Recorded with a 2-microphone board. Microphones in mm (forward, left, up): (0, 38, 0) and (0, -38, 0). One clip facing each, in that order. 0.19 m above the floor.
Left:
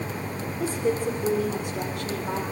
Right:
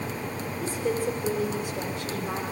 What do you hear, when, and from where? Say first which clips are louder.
0.6 s a woman speaking: left 2 dB; 60° left (ahead or behind), 9 m; by 2.4 s 65° left (ahead or behind), 8.5 m